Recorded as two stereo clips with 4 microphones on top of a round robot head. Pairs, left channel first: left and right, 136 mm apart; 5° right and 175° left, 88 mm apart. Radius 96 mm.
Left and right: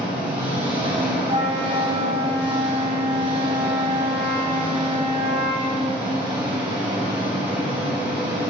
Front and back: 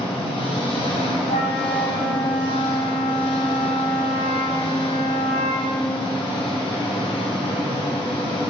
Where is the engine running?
30° right, 2.5 m.